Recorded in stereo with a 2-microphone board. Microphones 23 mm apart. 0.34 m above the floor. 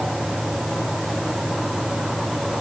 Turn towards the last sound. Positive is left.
No sound to turn to.